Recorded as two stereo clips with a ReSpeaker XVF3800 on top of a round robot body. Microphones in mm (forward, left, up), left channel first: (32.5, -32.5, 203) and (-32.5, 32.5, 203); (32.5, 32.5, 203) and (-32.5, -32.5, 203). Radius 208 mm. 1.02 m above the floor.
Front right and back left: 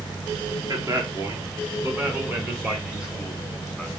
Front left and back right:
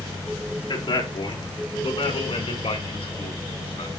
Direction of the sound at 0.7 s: 80° left.